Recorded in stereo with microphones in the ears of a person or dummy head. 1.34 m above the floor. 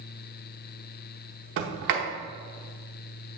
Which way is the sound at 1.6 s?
60° right (ahead or behind).